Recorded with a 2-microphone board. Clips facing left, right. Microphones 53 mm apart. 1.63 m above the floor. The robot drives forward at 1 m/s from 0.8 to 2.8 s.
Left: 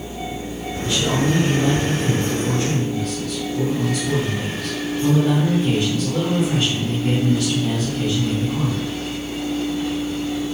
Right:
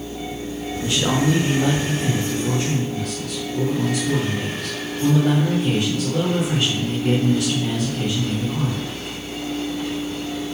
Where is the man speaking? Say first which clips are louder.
Even; 55° right (ahead or behind), 1.2 m; by 8.8 s 20° right (ahead or behind), 3 m.